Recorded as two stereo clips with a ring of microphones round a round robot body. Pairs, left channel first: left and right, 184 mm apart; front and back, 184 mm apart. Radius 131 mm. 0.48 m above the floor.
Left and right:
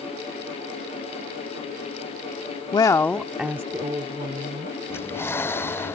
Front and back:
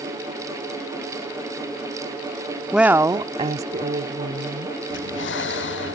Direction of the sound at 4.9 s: 10° left.